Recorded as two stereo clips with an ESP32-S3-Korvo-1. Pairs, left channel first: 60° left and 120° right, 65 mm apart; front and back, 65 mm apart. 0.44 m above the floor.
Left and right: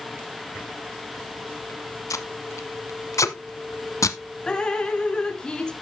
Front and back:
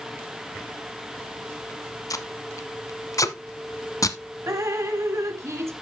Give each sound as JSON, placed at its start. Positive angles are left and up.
{"t": 2.1, "sound": "tape being pulled", "azimuth_deg": 25, "distance_m": 0.9}
{"t": 4.5, "sound": "dripping", "azimuth_deg": 135, "distance_m": 1.0}